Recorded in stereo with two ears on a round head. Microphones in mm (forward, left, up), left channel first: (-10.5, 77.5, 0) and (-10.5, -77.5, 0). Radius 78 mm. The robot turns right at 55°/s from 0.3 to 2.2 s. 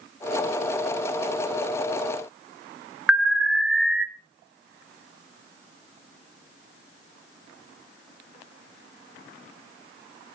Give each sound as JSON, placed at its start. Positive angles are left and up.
{"t": 3.1, "sound": "an alarm", "side_deg": 0, "distance_m": 1.3}